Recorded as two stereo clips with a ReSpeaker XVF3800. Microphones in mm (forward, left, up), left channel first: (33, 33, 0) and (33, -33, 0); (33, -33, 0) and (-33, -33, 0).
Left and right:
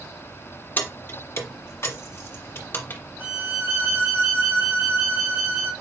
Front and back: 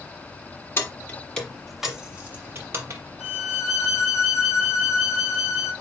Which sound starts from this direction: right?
A violin, at 3.2 s.